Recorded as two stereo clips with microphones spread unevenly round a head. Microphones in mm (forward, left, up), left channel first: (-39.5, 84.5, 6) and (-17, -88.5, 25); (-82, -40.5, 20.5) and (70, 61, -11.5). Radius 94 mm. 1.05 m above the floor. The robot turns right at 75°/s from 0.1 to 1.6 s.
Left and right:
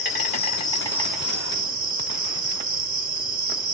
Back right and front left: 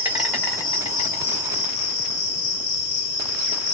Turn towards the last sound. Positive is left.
turn(degrees=-145)